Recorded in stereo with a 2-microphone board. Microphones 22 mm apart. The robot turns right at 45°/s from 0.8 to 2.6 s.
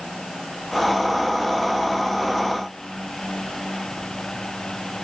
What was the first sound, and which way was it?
Only background noise.